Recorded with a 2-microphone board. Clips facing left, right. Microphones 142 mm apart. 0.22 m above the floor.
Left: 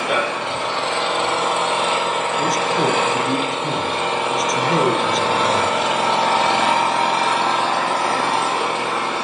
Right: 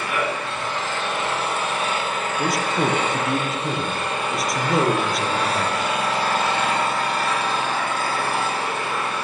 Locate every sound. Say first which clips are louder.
0.0 s an engine running: left 4 dB; 75° left (ahead or behind), 4 m
2.4 s a man speaking: left 2 dB; centre (ahead or behind), 4.5 m